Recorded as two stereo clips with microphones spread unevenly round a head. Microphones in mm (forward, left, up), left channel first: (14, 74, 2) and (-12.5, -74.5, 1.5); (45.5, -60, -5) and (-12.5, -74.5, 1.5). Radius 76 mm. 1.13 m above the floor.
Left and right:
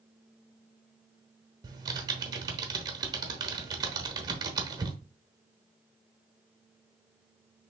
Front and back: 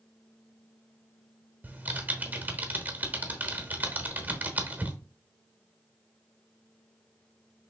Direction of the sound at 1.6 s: 150° right.